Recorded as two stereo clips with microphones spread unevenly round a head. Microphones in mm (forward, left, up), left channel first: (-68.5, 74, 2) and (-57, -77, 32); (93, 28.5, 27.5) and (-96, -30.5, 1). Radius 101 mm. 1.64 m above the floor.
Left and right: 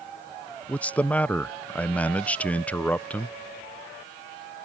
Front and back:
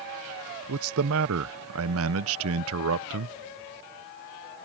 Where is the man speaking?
Straight behind.